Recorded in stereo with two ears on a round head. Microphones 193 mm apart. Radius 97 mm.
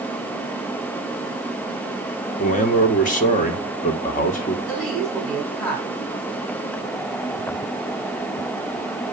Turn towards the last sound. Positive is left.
turn(degrees=5)  # may be behind; listen again after turning